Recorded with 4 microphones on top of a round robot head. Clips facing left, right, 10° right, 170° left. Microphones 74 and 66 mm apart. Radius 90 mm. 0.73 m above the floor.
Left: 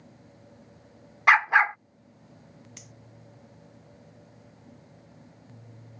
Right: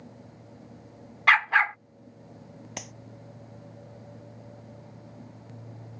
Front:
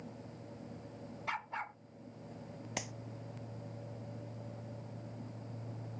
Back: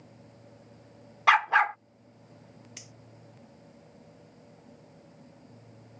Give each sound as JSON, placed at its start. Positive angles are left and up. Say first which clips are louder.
{"t": 1.3, "sound": "a dog barking", "louder": "left 2 dB, back 19 dB", "azimuth_deg": 165}
{"t": 2.8, "sound": "a clap", "louder": "right 11 dB, front 10 dB", "azimuth_deg": -55}